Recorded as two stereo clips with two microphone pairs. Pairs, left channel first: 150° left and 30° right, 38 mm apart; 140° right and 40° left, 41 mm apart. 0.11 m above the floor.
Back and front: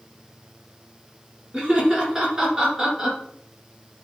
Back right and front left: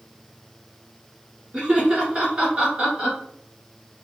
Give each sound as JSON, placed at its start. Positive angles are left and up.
{"t": 1.5, "sound": "laughter", "azimuth_deg": 30, "distance_m": 1.9}